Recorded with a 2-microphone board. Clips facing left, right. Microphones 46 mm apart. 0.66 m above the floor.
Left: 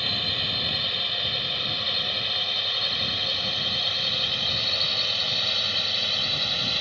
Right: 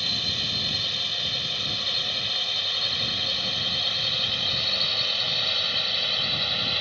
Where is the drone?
15° left (ahead or behind); by 6.8 s 5° right (ahead or behind).